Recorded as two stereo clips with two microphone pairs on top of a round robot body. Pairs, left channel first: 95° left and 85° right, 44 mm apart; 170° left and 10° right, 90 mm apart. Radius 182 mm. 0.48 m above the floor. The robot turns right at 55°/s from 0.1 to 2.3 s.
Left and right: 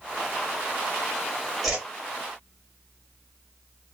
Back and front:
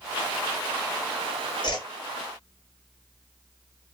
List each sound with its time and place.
1.6 s a whoosh: 165° right, 1.6 m; by 1.9 s 155° right, 1.6 m